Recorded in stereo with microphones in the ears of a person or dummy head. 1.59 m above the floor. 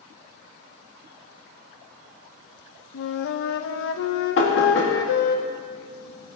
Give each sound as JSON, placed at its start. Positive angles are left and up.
{"t": 2.9, "sound": "a flute", "side_deg": 70, "distance_m": 0.6}
{"t": 4.4, "sound": "knocking", "side_deg": 70, "distance_m": 2.0}